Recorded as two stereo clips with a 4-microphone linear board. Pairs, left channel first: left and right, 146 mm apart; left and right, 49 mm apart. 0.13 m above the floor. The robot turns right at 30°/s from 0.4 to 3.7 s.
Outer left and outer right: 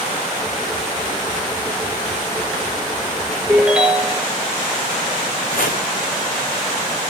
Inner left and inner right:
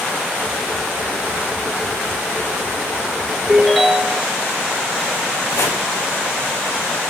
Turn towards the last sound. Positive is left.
turn(degrees=70)  # may be behind; listen again after turning